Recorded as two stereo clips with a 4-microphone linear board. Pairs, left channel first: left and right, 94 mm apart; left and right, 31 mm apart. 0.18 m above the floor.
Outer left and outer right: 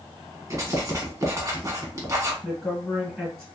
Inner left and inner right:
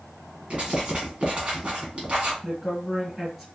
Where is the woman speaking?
5° right (ahead or behind), 1.8 m.